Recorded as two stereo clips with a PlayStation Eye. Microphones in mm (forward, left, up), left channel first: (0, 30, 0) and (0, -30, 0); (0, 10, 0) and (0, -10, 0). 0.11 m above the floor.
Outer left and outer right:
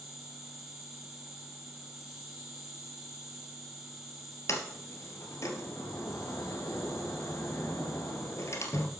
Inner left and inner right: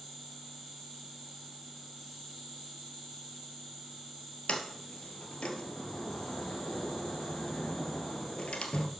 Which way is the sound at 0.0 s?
5° right (ahead or behind).